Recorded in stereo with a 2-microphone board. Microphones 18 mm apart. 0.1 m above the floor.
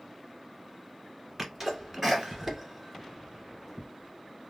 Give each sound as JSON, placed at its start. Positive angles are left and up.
{"t": 1.4, "sound": "a sneeze", "side_deg": -25, "distance_m": 1.8}